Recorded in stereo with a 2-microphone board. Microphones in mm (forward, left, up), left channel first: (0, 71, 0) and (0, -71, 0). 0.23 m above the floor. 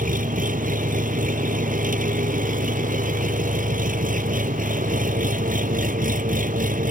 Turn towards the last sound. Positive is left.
turn(degrees=-70)  # may be behind; listen again after turning